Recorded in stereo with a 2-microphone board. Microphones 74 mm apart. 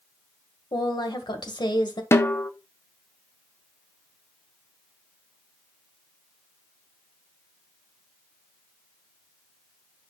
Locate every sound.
0.7 s a woman speaking: 80° left, 1.6 m
2.1 s a snare drum: 35° left (ahead or behind), 0.6 m